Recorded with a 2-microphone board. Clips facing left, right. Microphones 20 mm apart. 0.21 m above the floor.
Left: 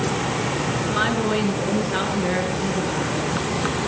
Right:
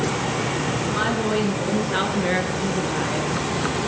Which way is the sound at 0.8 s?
25° left (ahead or behind).